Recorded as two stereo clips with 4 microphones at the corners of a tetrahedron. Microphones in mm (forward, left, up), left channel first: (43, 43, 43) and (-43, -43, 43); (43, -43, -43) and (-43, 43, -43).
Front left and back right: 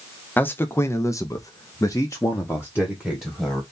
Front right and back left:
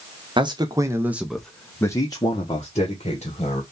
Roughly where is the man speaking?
Behind left.